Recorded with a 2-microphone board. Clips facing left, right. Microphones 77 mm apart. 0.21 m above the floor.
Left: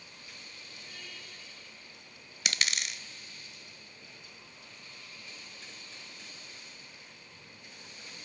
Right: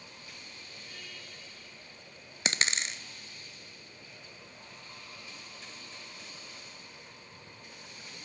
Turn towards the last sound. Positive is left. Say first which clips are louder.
# right 2 dB
turn(degrees=-35)  # may be behind; listen again after turning